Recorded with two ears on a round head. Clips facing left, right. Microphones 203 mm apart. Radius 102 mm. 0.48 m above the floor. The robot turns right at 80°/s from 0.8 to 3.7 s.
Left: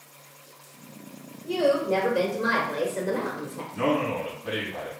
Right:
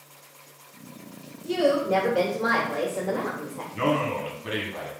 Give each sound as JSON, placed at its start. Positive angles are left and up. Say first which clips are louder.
{"t": 1.4, "sound": "a woman speaking", "louder": "even", "azimuth_deg": -60, "distance_m": 1.4}
{"t": 3.7, "sound": "a man speaking", "louder": "even", "side_deg": -30, "distance_m": 1.4}